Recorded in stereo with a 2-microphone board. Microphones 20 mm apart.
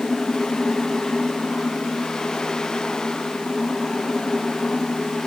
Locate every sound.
Only background noise.